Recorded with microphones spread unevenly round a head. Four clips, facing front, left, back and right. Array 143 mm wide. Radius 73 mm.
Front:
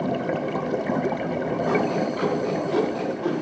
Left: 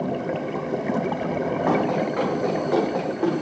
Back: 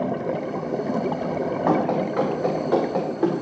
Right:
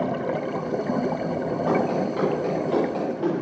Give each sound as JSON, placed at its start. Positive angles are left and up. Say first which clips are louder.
{"t": 1.7, "sound": "running footsteps", "louder": "even, back 3 dB", "azimuth_deg": 160, "distance_m": 8.0}